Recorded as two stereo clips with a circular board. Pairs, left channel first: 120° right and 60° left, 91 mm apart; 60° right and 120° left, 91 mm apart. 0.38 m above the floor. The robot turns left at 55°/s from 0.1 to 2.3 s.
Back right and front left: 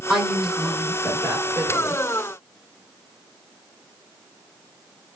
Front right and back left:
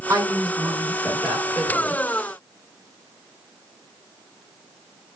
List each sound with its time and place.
0.1 s a woman speaking: 145° left, 1.7 m; by 2.0 s 40° left, 1.7 m